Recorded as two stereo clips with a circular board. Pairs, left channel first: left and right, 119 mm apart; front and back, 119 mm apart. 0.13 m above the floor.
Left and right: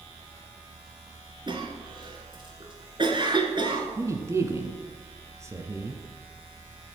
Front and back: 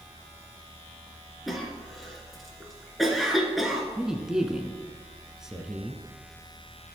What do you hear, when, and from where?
1.5 s a cough: 90° right, 2 m
4.0 s a man speaking: 100° right, 1.1 m